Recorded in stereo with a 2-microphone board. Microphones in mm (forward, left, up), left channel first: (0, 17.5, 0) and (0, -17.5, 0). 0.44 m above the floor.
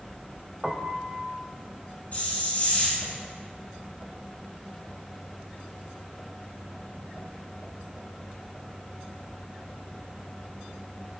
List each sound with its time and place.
0.6 s a piano: 10° right (ahead or behind), 1.3 m
2.1 s a hiss: 45° left (ahead or behind), 6 m